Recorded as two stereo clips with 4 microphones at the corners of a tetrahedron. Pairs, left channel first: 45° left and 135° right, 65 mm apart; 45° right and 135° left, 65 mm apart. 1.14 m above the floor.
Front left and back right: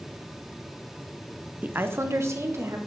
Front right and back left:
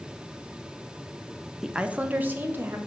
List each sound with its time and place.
1.6 s a woman speaking: 150° right, 0.7 m; by 2.8 s 170° right, 2 m